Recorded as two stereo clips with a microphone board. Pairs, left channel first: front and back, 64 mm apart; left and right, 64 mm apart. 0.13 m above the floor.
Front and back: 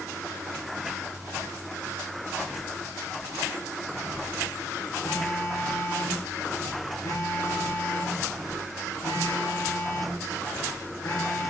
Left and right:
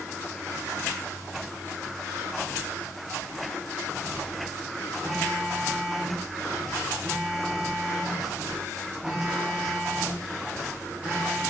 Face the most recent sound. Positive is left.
turn(degrees=-20)